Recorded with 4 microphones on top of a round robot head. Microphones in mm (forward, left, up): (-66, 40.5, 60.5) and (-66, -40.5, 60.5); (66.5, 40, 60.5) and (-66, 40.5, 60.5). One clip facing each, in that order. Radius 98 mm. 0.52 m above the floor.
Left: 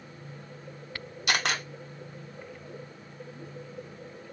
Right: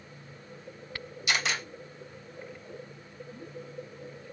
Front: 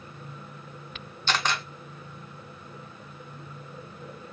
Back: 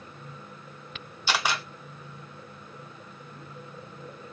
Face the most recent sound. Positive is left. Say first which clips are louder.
# left 2 dB, even
turn(degrees=100)